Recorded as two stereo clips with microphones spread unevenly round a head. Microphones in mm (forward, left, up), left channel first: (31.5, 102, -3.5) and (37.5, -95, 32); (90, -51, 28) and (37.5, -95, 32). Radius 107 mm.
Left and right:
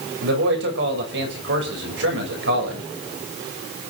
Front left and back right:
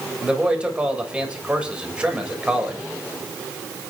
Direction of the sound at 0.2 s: 70° right.